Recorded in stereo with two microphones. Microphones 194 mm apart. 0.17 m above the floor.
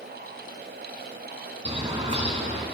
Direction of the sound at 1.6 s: 30° right (ahead or behind).